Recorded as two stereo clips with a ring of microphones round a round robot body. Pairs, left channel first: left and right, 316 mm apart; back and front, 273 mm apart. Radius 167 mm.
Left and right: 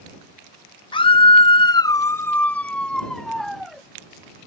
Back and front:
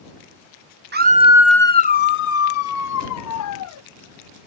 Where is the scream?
25° left; by 3.8 s straight behind.